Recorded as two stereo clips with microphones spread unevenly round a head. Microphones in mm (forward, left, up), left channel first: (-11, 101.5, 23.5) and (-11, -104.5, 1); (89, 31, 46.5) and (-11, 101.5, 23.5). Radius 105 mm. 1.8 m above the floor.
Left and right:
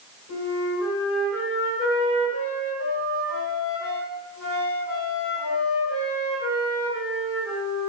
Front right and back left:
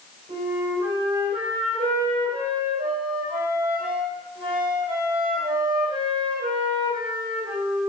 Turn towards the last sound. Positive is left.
turn(degrees=105)